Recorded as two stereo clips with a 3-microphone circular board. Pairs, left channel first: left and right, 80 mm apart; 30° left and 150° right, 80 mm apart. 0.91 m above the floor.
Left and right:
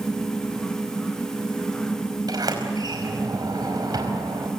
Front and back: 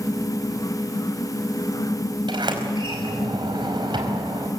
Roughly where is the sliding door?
Behind right.